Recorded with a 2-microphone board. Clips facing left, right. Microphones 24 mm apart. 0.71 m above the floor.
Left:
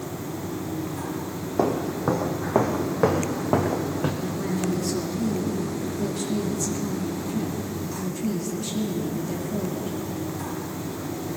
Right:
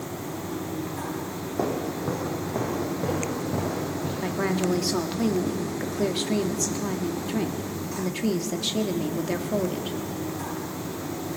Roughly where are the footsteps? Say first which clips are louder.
Left 4 dB; centre.